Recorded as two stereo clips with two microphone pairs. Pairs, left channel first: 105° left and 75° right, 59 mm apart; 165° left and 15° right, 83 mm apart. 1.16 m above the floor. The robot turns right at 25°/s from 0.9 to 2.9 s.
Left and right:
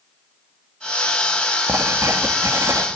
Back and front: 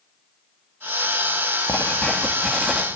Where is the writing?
120° right, 2 m; by 2.9 s 95° right, 2 m.